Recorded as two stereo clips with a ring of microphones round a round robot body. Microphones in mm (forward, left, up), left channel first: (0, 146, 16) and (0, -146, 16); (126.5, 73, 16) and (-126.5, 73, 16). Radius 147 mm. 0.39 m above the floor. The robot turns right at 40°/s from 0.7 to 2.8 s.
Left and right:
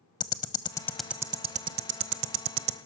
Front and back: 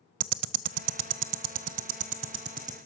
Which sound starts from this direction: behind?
Ticking, at 0.2 s.